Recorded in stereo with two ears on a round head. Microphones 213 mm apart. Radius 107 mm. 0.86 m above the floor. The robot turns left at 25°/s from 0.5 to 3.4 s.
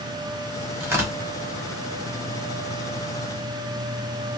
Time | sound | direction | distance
0.8 | tearing paper | 10° right (ahead or behind) | 1.1 m